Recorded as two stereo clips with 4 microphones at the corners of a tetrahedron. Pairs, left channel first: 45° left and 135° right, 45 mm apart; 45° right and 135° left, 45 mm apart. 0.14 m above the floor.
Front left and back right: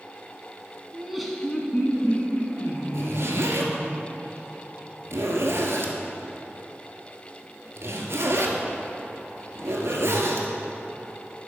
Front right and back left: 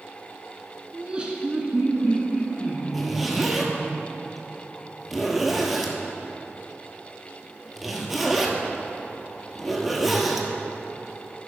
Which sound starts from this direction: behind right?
A zipper, at 2.9 s.